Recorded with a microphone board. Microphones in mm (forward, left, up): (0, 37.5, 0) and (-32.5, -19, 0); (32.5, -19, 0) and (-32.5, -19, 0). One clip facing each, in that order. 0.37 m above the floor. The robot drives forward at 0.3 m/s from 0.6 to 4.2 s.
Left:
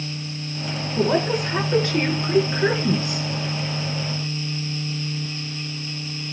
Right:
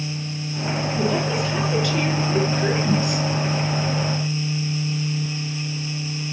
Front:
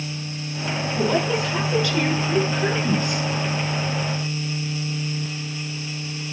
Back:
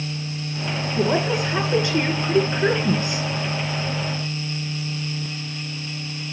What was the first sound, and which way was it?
A woman speaking, 110° left.